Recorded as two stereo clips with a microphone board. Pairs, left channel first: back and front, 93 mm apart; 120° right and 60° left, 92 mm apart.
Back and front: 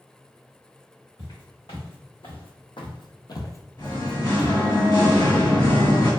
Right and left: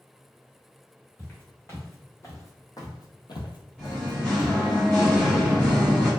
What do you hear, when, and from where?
1.2 s footsteps: 175° left, 1.7 m; by 4.6 s 60° right, 0.7 m
3.8 s singing: 155° left, 1.6 m